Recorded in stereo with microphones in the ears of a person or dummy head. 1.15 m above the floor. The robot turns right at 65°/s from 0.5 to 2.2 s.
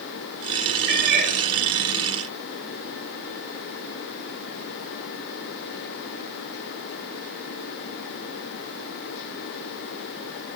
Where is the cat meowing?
65° right, 2.5 m; by 1.3 s 35° right, 2.5 m.